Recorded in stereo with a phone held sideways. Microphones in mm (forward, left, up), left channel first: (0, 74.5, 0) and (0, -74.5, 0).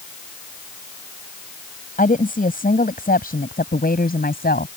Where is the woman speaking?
65° left (ahead or behind); by 4.7 s 90° left.